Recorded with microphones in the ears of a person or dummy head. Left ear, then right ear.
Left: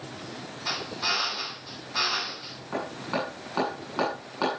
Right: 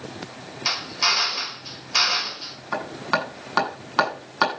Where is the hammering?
55° right (ahead or behind), 7 m.